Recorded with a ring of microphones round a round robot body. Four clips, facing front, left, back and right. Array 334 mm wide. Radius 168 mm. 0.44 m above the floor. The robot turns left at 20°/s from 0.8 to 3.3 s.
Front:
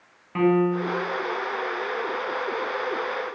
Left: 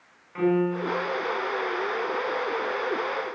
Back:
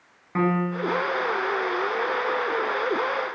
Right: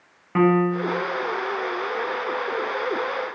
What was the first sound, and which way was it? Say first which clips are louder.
A piano: right 5 dB, front 4 dB; 105° right.